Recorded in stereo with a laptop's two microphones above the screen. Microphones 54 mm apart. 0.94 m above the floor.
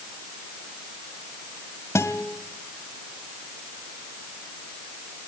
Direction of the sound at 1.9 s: 75° left (ahead or behind).